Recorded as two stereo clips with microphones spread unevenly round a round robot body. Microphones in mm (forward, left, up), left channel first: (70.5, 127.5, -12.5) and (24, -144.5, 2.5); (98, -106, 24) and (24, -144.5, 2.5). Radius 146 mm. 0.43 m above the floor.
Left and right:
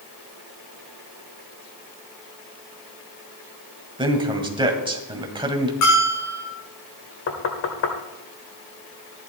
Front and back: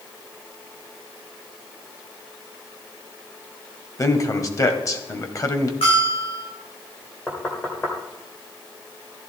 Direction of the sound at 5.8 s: 55° left.